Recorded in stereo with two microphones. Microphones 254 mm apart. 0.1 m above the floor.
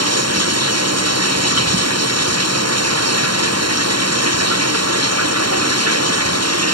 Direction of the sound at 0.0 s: 65° right (ahead or behind).